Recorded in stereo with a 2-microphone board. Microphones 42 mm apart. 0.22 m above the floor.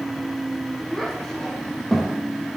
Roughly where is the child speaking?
Centre.